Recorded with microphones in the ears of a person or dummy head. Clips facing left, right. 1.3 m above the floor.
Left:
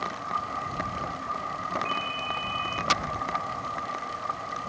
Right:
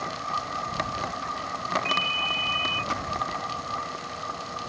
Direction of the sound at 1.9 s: 55° right (ahead or behind).